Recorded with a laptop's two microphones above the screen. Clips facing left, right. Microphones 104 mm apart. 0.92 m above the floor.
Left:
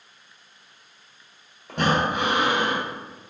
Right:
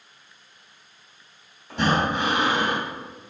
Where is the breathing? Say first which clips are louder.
Even; 75° left (ahead or behind), 1.8 m.